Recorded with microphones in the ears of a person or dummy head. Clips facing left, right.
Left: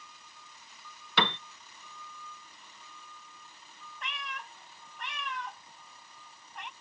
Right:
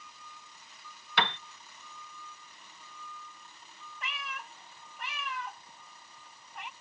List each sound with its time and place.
1.2 s a piano: 80° left
4.0 s a cat meowing: 5° right (ahead or behind)